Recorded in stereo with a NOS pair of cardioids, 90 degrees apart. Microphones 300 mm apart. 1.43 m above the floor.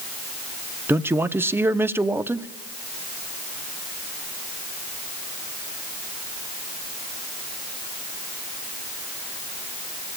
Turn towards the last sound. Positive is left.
turn(degrees=-10)